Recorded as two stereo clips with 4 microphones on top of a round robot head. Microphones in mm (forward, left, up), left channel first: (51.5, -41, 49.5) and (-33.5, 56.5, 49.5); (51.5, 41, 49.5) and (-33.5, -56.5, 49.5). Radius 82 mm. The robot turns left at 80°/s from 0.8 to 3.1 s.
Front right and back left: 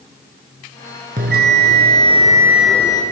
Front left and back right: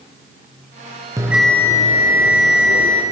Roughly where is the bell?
Behind.